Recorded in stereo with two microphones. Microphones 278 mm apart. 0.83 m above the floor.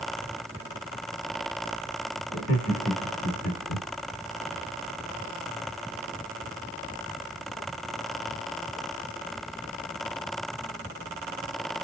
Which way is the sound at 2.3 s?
70° left (ahead or behind).